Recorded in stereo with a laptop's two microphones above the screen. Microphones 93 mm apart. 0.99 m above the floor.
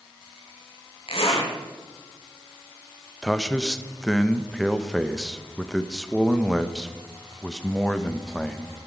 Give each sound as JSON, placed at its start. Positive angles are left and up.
{"t": 1.1, "sound": "a zipper", "side_deg": 75, "distance_m": 3.0}
{"t": 3.2, "sound": "a man speaking", "side_deg": 5, "distance_m": 0.8}